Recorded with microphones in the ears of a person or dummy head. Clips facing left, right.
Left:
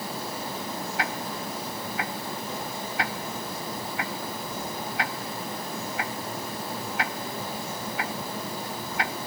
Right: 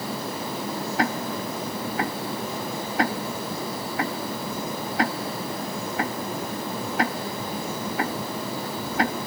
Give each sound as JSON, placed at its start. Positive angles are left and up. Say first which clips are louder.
{"t": 1.0, "sound": "ticking", "louder": "right 8 dB", "side_deg": -45}